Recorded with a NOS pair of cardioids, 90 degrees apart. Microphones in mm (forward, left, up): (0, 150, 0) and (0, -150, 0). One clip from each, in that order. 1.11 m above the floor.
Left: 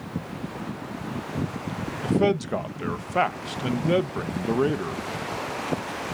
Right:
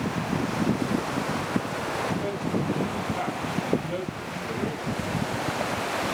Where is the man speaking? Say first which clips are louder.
Left 5 dB; 70° left, 0.8 m.